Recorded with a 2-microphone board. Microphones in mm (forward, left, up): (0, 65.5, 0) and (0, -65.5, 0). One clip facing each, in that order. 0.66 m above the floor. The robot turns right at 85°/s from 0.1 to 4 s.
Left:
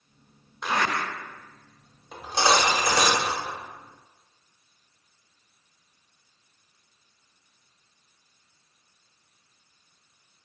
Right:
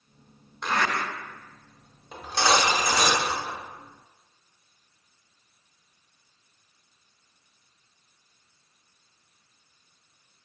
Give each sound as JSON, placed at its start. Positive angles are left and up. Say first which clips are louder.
{"t": 0.6, "sound": "a zipper", "louder": "even", "side_deg": 5, "distance_m": 0.7}
{"t": 2.1, "sound": "cutlery clinking", "louder": "left 1 dB", "azimuth_deg": -5, "distance_m": 0.8}